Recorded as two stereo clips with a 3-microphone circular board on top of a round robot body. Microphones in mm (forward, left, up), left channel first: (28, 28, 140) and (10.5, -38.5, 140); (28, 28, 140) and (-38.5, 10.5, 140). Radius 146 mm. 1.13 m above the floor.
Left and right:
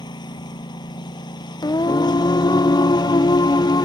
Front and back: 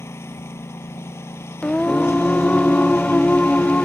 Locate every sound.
0.0 s a lawn mower: 70° left
1.6 s singing: 90° left